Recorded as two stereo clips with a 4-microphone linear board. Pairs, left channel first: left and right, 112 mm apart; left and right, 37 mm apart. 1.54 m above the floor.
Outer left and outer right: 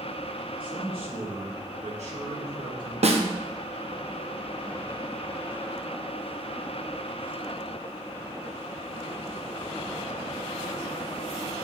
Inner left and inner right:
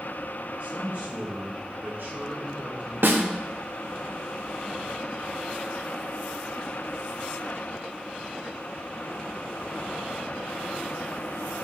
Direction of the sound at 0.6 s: 50° right (ahead or behind).